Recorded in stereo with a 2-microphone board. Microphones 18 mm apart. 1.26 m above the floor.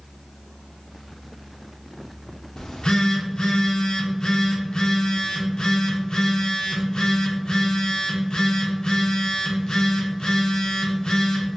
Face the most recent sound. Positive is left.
turn(degrees=65)  # may be behind; listen again after turning